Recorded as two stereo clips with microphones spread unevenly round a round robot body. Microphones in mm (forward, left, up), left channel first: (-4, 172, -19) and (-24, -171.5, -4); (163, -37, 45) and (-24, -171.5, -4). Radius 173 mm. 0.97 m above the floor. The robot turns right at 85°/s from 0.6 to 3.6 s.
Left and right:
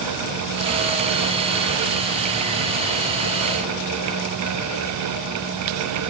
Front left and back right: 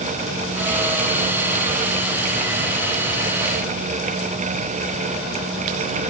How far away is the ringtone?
I don't hear a ringtone.